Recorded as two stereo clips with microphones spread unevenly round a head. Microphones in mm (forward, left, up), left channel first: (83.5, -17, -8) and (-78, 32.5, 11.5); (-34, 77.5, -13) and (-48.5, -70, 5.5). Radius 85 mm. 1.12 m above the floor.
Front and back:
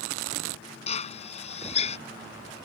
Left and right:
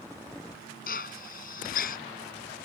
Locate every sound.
0.9 s a drill: 40° left